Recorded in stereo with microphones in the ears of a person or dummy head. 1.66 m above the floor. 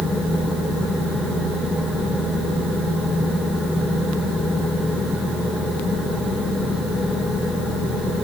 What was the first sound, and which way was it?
Only background noise.